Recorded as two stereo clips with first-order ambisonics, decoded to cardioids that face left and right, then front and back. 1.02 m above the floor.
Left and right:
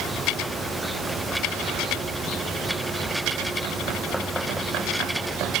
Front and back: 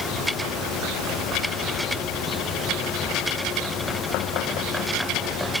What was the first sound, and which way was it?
Only background noise.